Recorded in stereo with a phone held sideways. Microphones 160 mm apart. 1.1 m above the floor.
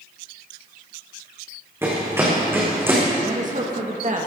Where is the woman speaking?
50° right (ahead or behind), 1.8 m.